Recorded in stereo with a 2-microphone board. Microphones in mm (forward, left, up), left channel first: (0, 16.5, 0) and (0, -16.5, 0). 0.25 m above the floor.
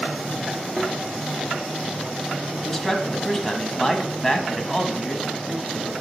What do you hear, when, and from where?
0.8 s a thud: 5° left (ahead or behind), 4 m
2.6 s a man speaking: 5° left (ahead or behind), 1.4 m